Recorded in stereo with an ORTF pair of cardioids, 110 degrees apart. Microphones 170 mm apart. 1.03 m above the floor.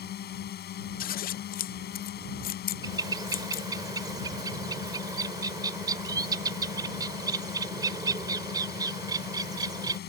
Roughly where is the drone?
Ahead left.